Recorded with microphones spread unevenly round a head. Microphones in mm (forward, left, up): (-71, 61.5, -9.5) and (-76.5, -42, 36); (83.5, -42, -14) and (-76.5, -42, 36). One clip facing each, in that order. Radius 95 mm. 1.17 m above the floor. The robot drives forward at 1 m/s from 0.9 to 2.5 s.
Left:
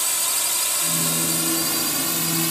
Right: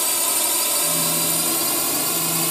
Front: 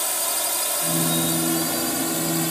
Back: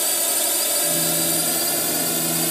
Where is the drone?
130° right; by 2.5 s 135° right.